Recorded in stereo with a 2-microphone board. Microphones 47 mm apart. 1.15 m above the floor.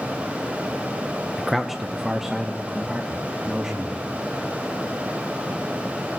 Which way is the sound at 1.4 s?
Centre (ahead or behind).